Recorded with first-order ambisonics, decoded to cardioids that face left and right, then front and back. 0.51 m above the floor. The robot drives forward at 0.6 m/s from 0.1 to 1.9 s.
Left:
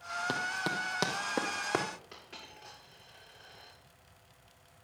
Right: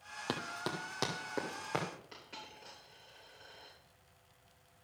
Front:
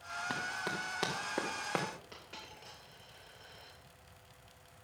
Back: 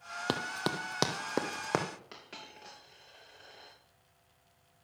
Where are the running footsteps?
175° right, 1.0 m; by 1.9 s 155° left, 1.9 m.